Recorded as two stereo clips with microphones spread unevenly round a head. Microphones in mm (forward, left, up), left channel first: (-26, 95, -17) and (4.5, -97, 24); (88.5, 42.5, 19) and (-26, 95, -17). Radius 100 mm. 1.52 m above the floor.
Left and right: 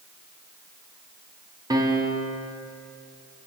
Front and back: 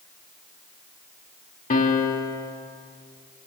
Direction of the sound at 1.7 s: 5° right.